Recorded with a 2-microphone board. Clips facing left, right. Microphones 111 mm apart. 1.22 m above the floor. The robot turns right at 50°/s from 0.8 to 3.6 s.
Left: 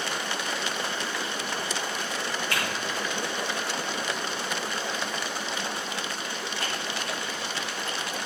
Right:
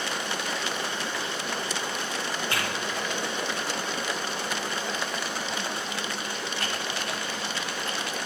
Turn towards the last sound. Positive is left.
turn(degrees=-75)  # may be behind; listen again after turning